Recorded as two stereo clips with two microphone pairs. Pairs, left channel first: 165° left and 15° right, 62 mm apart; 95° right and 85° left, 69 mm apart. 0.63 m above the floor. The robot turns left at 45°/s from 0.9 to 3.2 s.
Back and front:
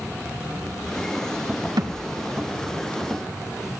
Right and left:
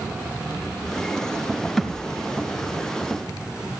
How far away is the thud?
About 2.5 m.